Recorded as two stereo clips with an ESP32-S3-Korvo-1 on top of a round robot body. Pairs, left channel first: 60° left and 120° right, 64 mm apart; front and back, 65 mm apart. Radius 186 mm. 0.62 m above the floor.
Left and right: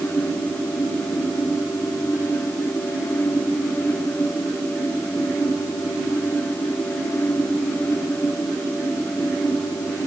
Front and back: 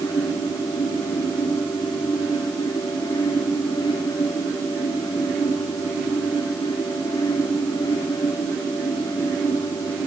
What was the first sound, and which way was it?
Only background noise.